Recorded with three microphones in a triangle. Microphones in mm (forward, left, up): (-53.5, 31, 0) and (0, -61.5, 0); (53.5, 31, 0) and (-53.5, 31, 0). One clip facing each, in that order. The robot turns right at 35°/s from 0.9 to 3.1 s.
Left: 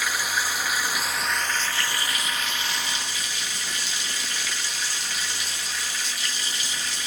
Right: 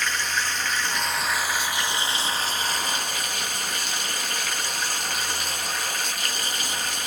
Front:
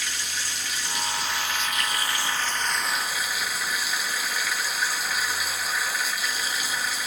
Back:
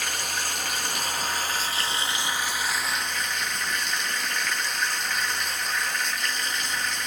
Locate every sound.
0.0 s running water: 160° right, 0.9 m; by 7.1 s 85° right, 0.9 m